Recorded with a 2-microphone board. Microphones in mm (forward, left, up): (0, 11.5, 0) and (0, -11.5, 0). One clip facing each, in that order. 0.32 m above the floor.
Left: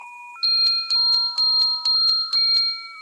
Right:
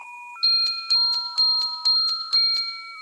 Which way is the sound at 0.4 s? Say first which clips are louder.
Left 2 dB; 15° left (ahead or behind).